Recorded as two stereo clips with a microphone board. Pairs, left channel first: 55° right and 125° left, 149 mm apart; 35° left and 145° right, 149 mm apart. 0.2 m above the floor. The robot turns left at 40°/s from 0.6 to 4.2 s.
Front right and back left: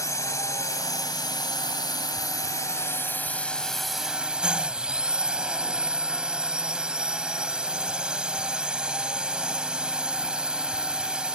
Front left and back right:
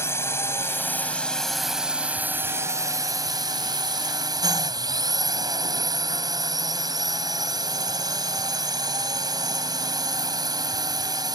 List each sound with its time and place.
0.0 s a drone: 15° right; by 11.4 s 160° right